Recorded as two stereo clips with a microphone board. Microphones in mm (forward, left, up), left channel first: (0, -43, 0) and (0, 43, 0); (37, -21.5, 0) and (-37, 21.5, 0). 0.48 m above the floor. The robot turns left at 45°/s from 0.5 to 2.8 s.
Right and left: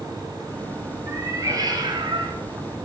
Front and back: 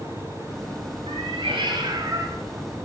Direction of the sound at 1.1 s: 155° left.